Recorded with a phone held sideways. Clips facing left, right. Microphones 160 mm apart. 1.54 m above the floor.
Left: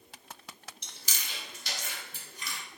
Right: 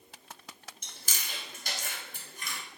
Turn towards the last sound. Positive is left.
turn(degrees=-50)  # may be behind; listen again after turning